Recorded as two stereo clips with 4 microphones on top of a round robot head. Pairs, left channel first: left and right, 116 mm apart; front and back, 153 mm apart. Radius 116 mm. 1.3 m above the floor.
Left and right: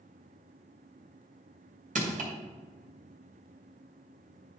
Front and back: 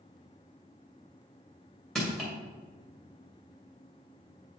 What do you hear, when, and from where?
1.9 s crushing: 90° right, 2.5 m